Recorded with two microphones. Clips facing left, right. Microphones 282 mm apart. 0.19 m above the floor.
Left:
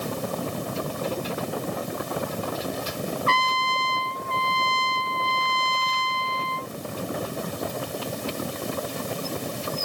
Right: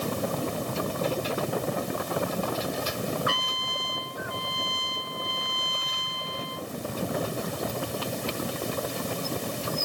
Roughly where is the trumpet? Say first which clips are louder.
Left 4 dB; centre.